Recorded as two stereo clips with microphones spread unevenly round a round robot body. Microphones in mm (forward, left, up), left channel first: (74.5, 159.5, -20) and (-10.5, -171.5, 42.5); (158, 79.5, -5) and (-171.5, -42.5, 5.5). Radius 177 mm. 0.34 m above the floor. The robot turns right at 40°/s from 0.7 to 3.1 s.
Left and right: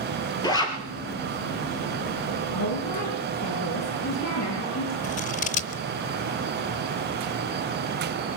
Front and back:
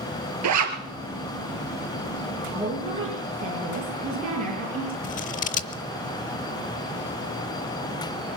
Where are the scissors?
65° left, 0.6 m.